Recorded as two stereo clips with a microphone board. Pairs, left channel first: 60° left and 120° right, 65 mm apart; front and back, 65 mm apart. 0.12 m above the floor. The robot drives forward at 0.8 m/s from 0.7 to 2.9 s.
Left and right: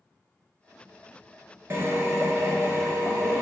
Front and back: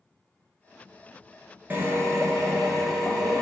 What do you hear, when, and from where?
1.7 s a drill: 140° right, 0.7 m; by 3.4 s 165° right, 1.4 m